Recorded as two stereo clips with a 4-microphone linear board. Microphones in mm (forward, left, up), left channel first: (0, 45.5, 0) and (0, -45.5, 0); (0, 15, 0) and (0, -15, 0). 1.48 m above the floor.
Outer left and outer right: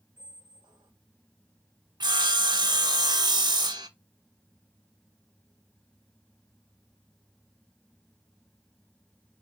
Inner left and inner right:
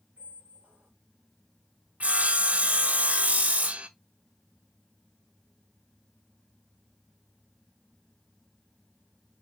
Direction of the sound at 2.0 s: 55° right (ahead or behind).